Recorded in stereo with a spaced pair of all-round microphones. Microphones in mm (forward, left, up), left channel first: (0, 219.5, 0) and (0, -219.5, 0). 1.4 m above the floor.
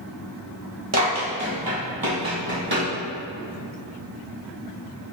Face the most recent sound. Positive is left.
turn(degrees=-60)  # may be behind; listen again after turning